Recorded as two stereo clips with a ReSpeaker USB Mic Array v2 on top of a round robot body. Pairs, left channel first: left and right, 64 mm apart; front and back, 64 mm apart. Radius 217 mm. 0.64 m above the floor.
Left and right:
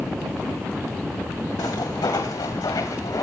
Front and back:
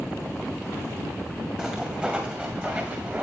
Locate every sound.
1.6 s footsteps: 100° left, 2 m; by 3.2 s 115° left, 3.5 m